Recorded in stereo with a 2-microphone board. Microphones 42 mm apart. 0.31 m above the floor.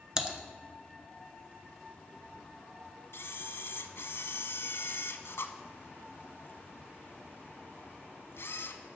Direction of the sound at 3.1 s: 70° left (ahead or behind).